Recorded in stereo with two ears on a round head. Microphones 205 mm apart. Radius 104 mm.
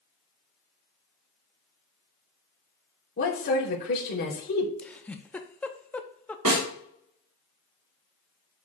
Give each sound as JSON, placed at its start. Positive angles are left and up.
{"t": 3.2, "sound": "a woman speaking", "side_deg": 45, "distance_m": 3.0}
{"t": 4.8, "sound": "a giggle", "side_deg": 5, "distance_m": 0.6}
{"t": 6.5, "sound": "a snare drum", "side_deg": -85, "distance_m": 3.5}